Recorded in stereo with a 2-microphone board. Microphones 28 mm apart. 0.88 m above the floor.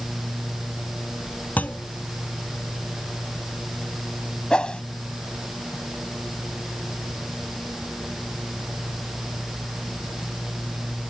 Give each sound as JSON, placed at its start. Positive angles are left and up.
{"t": 1.6, "sound": "a clunk", "side_deg": 70}
{"t": 4.5, "sound": "a whoosh", "side_deg": 30}